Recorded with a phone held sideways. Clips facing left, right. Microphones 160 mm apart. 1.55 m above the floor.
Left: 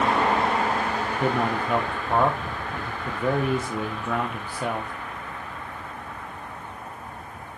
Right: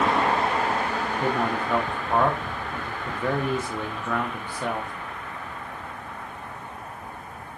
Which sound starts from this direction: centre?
A man speaking, at 1.2 s.